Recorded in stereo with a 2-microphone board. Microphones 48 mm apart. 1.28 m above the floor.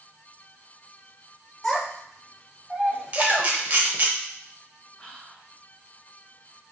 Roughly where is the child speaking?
Centre.